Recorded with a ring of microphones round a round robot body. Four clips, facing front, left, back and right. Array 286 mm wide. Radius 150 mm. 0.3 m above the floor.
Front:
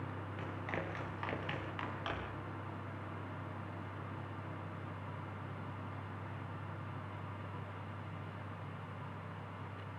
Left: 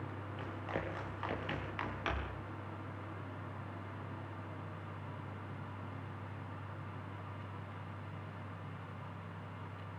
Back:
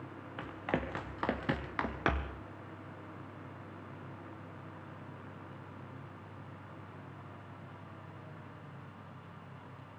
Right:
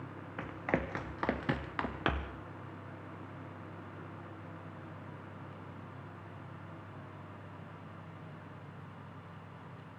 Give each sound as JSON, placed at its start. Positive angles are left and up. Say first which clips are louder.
{"t": 0.4, "sound": "running footsteps", "louder": "right 7 dB, back 7 dB", "azimuth_deg": -120, "distance_m": 3.5}